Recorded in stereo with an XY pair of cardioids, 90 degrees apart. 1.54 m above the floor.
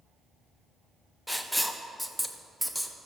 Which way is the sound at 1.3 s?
5° left.